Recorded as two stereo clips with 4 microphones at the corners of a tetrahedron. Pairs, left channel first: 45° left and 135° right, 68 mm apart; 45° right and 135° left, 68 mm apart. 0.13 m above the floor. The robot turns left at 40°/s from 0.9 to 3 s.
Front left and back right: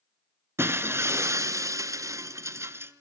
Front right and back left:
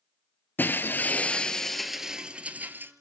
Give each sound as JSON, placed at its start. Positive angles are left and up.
{"t": 0.6, "sound": "breaking glass", "azimuth_deg": -100, "distance_m": 1.1}